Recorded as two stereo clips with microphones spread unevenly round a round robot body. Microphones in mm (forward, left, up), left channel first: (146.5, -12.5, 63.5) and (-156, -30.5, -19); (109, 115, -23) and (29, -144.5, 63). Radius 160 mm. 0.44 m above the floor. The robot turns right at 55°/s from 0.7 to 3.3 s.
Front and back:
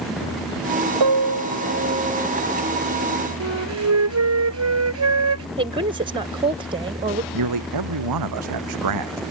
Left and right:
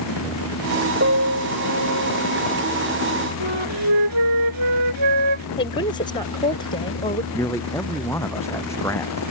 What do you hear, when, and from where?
1.0 s a piano: 165° right; by 2.3 s 95° right
3.4 s a flute: 135° right
5.6 s a woman speaking: 130° left
7.3 s a man speaking: 155° left